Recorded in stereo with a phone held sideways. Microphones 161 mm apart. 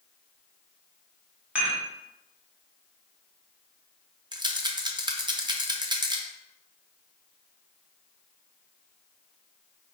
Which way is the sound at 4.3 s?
30° right (ahead or behind).